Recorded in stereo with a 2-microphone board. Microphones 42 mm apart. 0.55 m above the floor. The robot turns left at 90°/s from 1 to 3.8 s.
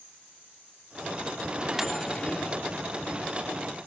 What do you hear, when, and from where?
1.5 s a microwave: 140° right; by 2.6 s 120° left